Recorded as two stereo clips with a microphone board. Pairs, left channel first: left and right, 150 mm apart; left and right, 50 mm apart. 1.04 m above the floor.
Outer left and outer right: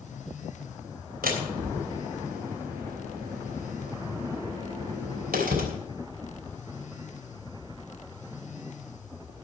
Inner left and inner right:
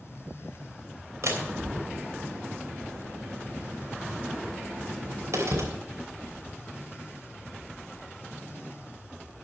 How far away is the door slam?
About 3 m.